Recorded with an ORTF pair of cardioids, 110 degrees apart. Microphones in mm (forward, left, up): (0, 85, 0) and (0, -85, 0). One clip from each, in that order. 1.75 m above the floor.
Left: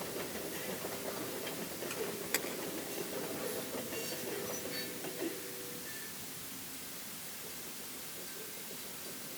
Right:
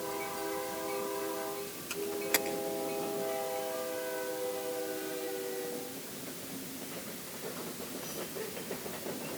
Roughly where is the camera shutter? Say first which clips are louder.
Right 6 dB; ahead right.